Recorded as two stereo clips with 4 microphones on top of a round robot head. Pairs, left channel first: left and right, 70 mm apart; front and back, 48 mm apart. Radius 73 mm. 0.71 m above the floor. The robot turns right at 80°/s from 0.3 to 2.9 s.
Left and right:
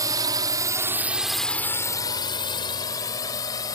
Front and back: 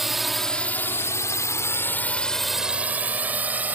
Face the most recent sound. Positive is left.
turn(degrees=130)